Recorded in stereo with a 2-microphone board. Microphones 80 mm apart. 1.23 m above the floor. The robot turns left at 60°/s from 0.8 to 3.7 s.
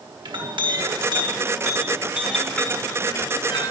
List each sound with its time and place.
0.2 s a clink: 85° right, 1.5 m; by 3.7 s 100° left, 1.5 m